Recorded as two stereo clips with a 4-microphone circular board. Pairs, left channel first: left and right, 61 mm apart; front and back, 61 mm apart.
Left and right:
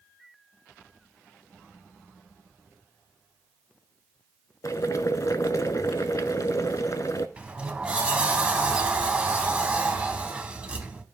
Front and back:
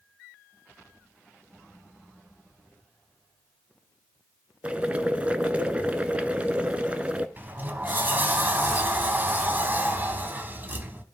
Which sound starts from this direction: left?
Boiling, at 4.6 s.